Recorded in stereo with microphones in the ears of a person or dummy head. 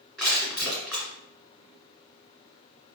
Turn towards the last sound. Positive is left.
turn(degrees=5)  # may be behind; listen again after turning